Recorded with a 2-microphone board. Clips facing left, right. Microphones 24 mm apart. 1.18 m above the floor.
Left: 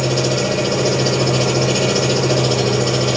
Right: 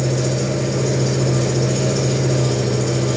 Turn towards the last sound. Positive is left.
turn(degrees=85)